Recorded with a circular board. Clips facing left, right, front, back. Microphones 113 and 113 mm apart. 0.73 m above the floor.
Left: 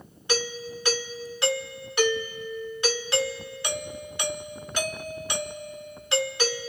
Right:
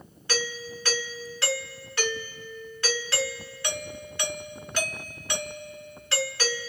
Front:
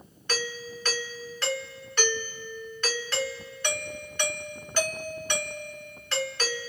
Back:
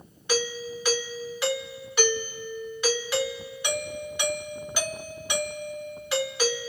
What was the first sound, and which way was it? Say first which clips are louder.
A doorbell: left 3 dB, back 5 dB; 120° left.